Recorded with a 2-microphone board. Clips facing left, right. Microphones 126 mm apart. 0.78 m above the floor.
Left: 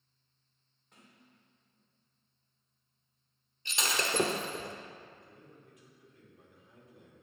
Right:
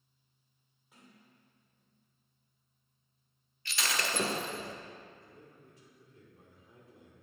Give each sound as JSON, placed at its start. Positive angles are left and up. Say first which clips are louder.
{"t": 0.9, "sound": "a sliding door", "louder": "right 1 dB", "side_deg": -5, "distance_m": 2.5}
{"t": 3.6, "sound": "breaking glass", "louder": "left 2 dB", "side_deg": 20, "distance_m": 0.9}
{"t": 5.1, "sound": "a man speaking", "louder": "even", "side_deg": -35, "distance_m": 2.5}